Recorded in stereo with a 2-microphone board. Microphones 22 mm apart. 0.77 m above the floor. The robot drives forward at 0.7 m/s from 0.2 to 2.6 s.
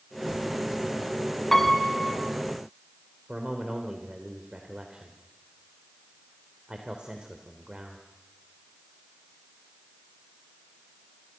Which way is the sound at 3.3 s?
45° right (ahead or behind).